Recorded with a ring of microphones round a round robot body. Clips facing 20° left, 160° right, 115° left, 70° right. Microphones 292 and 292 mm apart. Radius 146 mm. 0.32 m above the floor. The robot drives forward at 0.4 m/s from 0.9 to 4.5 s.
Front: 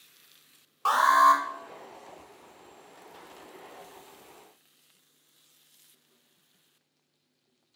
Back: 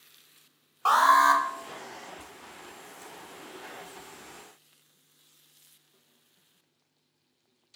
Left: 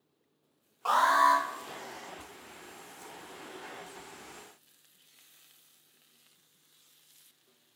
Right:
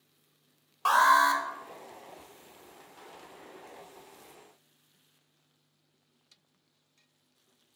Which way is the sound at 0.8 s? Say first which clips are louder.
Back 1 dB, even; 50° right.